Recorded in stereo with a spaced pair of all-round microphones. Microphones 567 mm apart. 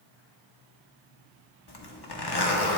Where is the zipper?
45° left (ahead or behind), 1.1 m.